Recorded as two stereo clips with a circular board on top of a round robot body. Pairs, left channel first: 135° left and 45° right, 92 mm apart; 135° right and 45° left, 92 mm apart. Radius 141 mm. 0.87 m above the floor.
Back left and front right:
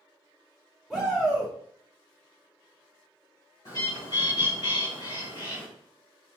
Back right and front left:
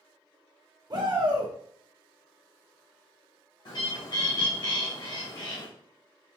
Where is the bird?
175° right, 1.9 m.